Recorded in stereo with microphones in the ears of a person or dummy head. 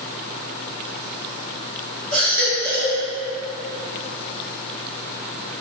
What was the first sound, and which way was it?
A baby crying, 60° right (ahead or behind).